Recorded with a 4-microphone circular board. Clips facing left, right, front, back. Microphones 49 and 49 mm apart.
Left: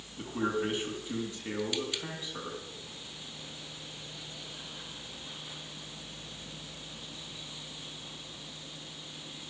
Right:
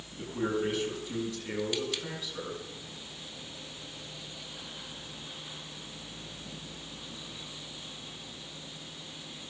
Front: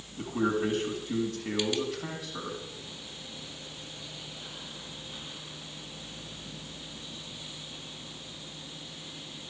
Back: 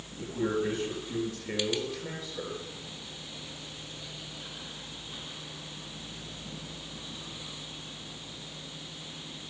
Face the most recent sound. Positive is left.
turn(degrees=30)